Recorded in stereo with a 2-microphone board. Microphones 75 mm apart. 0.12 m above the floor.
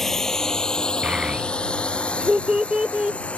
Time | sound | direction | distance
0.0 | a drone | 5° left (ahead or behind) | ?
1.0 | a child speaking | 15° right (ahead or behind) | ?